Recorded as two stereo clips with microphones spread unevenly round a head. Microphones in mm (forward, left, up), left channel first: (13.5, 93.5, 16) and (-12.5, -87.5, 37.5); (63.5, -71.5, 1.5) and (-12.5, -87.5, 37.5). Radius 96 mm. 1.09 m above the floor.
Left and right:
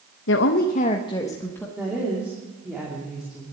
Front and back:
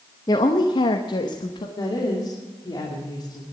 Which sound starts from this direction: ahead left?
A woman speaking, at 0.3 s.